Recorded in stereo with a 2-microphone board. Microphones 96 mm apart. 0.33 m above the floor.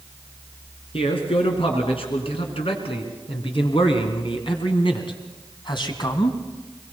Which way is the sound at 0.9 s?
75° left (ahead or behind).